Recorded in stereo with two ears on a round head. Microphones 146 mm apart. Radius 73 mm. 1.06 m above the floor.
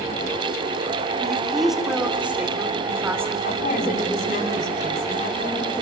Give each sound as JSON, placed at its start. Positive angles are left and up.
{"t": 1.2, "sound": "a woman speaking", "side_deg": 5, "distance_m": 3.0}
{"t": 3.4, "sound": "a woman speaking", "side_deg": 50, "distance_m": 8.0}